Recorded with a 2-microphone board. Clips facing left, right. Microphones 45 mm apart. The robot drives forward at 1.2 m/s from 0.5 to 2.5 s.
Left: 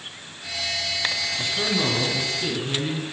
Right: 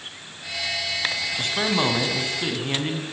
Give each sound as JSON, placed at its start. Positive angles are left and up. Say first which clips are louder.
{"t": 1.4, "sound": "a man speaking", "louder": "right 4 dB", "side_deg": -60, "distance_m": 4.0}